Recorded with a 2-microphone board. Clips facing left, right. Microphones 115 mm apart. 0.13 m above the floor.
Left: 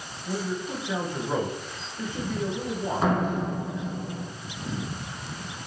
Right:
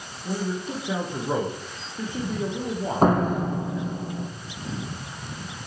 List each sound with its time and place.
0.2 s a man speaking: 35° right (ahead or behind), 8 m
3.0 s a door slam: 45° right (ahead or behind), 4 m